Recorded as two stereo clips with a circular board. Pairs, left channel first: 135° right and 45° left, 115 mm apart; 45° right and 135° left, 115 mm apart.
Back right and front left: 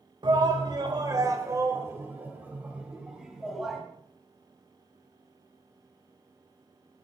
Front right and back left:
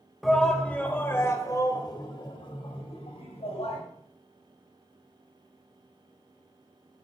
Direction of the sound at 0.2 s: 45° left.